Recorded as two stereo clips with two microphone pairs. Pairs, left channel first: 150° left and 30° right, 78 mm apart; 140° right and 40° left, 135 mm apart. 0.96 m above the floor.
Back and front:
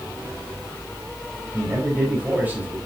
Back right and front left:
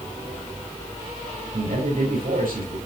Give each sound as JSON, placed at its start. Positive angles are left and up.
{"t": 1.5, "sound": "a man speaking", "azimuth_deg": 40, "distance_m": 4.5}